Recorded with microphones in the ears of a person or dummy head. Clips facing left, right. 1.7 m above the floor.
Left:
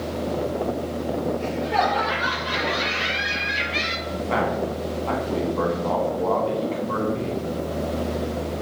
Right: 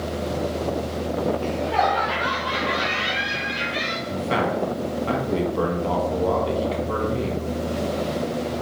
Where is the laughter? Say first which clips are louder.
Right 1 dB; 20° left (ahead or behind), 2.5 m; by 4.0 s 25° left (ahead or behind), 1.3 m.